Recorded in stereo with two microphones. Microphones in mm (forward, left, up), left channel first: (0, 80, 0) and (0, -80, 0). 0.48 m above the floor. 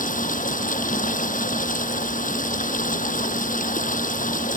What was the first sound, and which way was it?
Running water, 55° left (ahead or behind).